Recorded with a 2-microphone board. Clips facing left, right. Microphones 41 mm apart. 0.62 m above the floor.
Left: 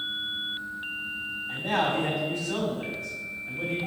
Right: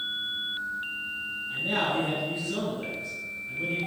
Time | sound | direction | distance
1.5 | a man speaking | 65° left (ahead or behind) | 3 m